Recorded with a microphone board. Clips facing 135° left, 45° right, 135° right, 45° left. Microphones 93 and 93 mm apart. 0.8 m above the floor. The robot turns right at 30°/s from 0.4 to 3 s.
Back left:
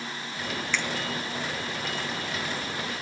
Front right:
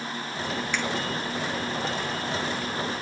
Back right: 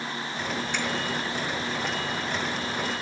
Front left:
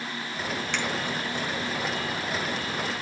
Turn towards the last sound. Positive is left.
turn(degrees=105)